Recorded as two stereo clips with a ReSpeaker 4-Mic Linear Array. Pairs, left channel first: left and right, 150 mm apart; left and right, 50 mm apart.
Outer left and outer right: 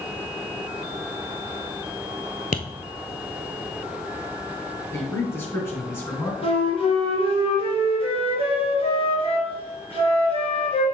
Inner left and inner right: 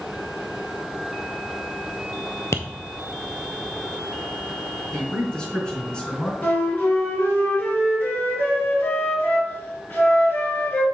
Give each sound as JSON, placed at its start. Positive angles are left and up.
{"t": 2.5, "sound": "tapping", "side_deg": 70, "distance_m": 0.8}
{"t": 4.9, "sound": "a man speaking", "side_deg": 20, "distance_m": 3.0}
{"t": 6.4, "sound": "a flute", "side_deg": 40, "distance_m": 2.5}